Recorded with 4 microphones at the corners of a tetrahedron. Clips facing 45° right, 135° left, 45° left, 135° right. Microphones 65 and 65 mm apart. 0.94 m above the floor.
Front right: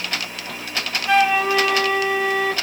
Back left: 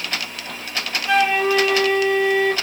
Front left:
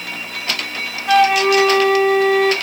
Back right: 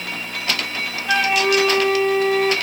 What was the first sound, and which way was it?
A flute, 40° left.